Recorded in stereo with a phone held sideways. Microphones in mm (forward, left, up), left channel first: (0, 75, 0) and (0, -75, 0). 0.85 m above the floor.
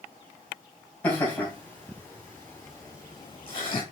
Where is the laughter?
10° left (ahead or behind), 3.5 m; by 3.8 s 40° left (ahead or behind), 1.3 m.